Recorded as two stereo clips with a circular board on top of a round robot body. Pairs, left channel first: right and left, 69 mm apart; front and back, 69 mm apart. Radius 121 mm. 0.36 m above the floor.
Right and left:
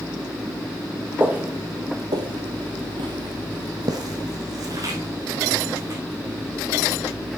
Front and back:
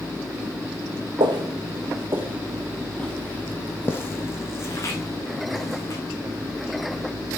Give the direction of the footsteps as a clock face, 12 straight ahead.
7 o'clock.